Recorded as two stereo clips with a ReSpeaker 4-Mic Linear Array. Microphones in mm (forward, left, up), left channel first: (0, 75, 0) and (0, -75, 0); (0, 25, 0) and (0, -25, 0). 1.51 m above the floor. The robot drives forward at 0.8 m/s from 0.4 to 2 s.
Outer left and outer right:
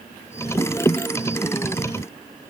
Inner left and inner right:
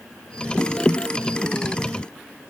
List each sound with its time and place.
Only background noise.